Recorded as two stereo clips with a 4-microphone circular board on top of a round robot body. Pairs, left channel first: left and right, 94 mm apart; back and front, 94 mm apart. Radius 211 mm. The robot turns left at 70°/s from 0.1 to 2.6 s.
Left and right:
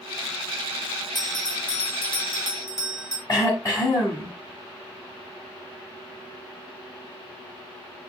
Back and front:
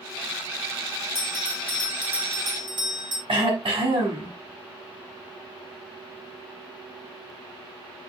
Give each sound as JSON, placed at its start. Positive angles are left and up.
{"t": 1.1, "sound": "a bell", "azimuth_deg": 135, "distance_m": 3.0}
{"t": 3.3, "sound": "throat clearing", "azimuth_deg": 35, "distance_m": 1.1}